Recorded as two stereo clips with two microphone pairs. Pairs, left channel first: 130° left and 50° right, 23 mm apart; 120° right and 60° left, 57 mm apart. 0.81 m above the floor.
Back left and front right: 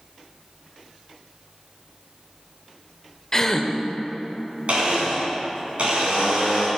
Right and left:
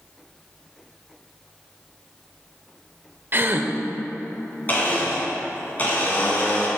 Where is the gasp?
75° left, 0.6 m.